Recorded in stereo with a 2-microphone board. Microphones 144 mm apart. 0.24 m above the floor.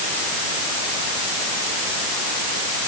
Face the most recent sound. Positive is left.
No sound to turn to.